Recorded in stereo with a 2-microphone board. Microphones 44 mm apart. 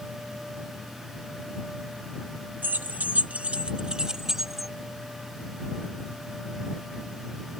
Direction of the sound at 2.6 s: 50° right (ahead or behind).